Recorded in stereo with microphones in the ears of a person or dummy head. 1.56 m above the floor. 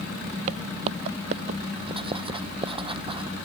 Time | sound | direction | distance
0.5 | footsteps | 45° right (ahead or behind) | ?
1.9 | writing | 30° right (ahead or behind) | ?